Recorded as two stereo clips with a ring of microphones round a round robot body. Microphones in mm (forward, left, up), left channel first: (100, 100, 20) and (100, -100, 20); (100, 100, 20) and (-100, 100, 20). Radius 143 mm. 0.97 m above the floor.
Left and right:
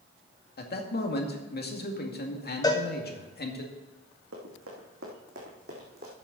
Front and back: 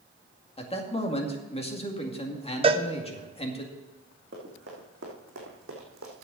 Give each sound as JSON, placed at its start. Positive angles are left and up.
{"t": 0.6, "sound": "a man speaking", "azimuth_deg": 60, "distance_m": 2.0}
{"t": 2.6, "sound": "a cowbell", "azimuth_deg": 145, "distance_m": 0.8}
{"t": 4.3, "sound": "running footsteps", "azimuth_deg": -125, "distance_m": 3.5}